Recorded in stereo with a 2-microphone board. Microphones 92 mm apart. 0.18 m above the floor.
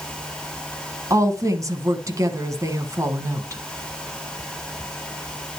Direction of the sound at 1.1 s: 35° right (ahead or behind).